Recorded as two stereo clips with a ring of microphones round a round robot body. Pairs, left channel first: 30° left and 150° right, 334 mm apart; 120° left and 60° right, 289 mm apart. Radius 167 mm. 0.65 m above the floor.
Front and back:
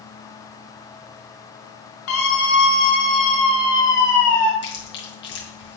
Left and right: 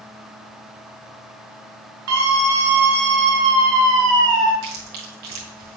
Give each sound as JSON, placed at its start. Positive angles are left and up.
{"t": 2.1, "sound": "a scream", "azimuth_deg": -25, "distance_m": 3.0}
{"t": 4.6, "sound": "chewing", "azimuth_deg": -30, "distance_m": 6.0}